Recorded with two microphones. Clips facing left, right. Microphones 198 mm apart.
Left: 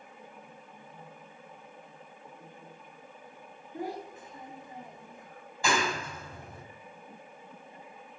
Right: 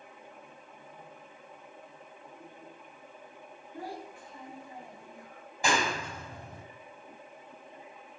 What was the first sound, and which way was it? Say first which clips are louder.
A child speaking: left 4 dB; 20° left (ahead or behind).